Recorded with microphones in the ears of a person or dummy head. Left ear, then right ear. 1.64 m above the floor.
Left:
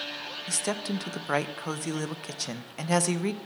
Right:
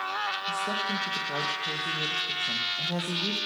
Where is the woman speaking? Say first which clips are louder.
Right 3 dB; 65° left (ahead or behind), 0.8 m.